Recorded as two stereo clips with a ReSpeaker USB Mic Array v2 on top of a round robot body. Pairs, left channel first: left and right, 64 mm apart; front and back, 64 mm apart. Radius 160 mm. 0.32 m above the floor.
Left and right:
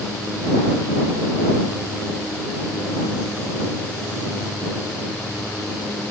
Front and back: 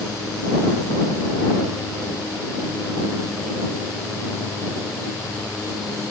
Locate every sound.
Only background noise.